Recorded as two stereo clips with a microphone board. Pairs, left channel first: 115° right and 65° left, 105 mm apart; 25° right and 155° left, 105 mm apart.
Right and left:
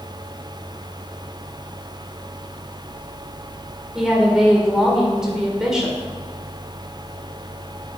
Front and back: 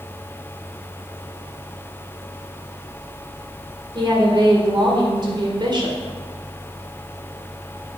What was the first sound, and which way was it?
A woman speaking, 150° left.